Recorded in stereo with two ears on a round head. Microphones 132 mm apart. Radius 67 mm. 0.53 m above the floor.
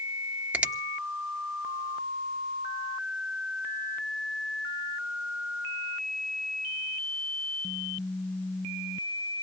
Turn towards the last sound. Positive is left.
turn(degrees=-10)  # may be behind; listen again after turning